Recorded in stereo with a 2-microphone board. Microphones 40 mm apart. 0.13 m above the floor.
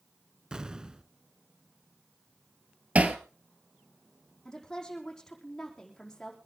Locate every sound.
0.5 s an explosion: 20° right (ahead or behind), 0.6 m
3.0 s hammering: 40° right (ahead or behind), 1.4 m
4.5 s a woman speaking: 15° left (ahead or behind), 5 m